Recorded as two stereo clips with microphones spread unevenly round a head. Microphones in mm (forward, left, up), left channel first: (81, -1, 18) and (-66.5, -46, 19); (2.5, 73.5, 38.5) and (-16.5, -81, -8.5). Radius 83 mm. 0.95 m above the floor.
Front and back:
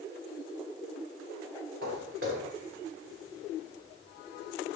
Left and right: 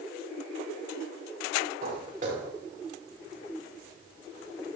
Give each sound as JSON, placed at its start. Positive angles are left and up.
{"t": 1.8, "sound": "footsteps", "azimuth_deg": -145, "distance_m": 6.5}